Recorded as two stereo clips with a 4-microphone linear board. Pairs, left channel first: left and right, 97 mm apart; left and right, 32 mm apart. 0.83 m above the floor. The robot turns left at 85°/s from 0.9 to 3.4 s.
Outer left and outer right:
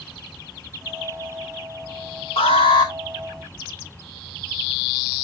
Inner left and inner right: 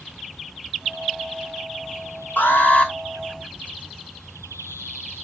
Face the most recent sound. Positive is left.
turn(degrees=5)